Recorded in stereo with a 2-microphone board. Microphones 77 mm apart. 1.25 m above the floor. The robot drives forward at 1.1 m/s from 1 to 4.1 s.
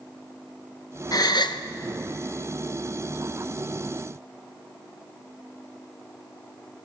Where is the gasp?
55° left (ahead or behind), 1.0 m; by 1.6 s 90° left, 0.8 m.